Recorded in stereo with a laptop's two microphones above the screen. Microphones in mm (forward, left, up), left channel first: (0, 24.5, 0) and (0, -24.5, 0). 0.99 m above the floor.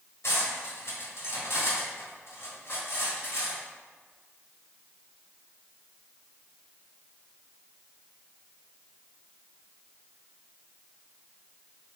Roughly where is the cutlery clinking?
Left.